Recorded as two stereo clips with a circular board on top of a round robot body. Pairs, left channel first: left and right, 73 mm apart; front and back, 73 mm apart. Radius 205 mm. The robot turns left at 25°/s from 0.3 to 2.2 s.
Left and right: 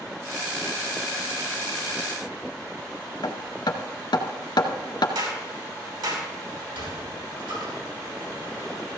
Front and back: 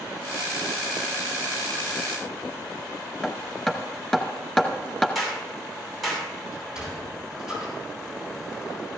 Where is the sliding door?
100° right, 7.5 m.